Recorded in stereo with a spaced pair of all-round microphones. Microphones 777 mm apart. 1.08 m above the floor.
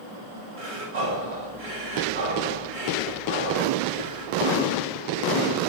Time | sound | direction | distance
0.6 | breathing | 85° right | 6 m